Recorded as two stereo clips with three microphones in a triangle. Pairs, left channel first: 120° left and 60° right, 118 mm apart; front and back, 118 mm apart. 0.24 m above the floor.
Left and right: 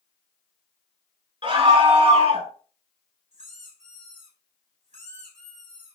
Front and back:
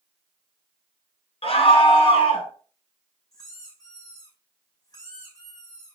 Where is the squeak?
55° right, 4.5 m.